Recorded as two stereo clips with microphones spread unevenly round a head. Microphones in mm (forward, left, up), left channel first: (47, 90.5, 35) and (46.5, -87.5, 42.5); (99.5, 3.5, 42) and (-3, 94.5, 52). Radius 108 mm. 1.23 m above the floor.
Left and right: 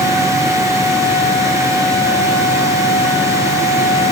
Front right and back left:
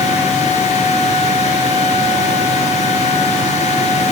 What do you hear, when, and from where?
0.0 s a fan: 15° right, 1.5 m